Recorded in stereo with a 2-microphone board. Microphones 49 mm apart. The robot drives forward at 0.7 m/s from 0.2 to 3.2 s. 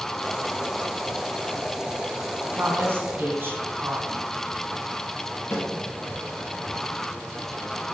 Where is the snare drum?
55° left (ahead or behind), 2 m.